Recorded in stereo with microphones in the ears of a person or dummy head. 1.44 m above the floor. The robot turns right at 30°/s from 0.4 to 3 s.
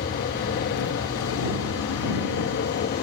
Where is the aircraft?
60° left; by 3.0 s 135° left.